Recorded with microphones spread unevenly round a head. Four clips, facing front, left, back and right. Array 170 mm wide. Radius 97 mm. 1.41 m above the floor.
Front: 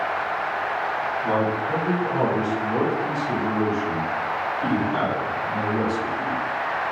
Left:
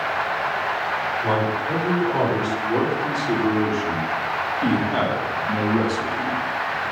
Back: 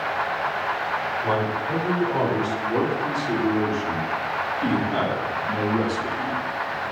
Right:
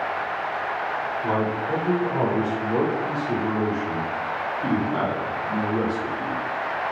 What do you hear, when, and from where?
1.2 s a man speaking: 110° left, 7 m; by 6.4 s 105° left, 3 m